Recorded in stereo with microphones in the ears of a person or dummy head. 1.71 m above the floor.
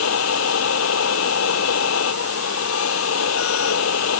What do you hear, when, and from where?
0.0 s a machine running: 80° left